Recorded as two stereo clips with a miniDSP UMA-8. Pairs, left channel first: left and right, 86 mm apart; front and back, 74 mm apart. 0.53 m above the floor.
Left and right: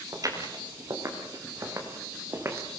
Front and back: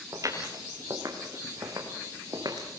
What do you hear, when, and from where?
0.1 s footsteps: 140° right, 5 m; by 2.7 s 150° right, 3 m